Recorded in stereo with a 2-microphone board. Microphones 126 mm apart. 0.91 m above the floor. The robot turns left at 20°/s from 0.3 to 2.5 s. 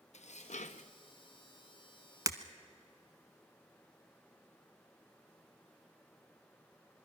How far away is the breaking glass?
About 0.9 m.